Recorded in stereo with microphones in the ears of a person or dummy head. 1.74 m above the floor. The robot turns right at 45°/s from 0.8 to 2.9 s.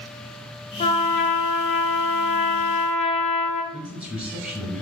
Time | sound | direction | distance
0.8 | a trumpet | 45° left | 0.6 m
3.7 | a man speaking | centre (ahead or behind) | 1.8 m